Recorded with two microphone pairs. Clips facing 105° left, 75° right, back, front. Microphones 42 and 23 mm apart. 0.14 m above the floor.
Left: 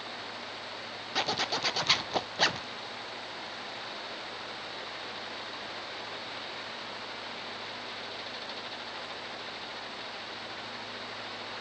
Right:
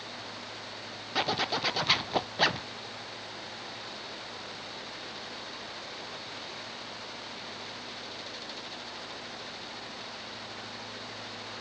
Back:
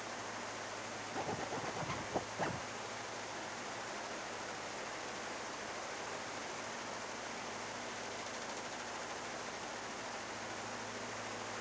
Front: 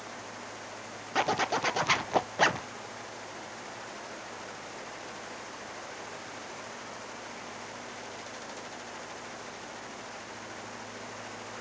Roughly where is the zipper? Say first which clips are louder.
Right 2 dB, front 14 dB; ahead.